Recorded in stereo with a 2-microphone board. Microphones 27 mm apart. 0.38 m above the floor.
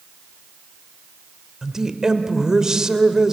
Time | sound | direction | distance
1.6 | a woman speaking | 25° right (ahead or behind) | 1.4 m